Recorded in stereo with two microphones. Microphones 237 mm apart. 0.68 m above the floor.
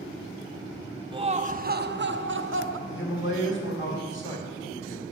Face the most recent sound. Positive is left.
turn(degrees=55)  # may be behind; listen again after turning